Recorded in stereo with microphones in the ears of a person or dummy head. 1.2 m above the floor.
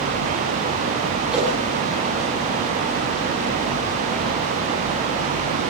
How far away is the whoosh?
About 10 m.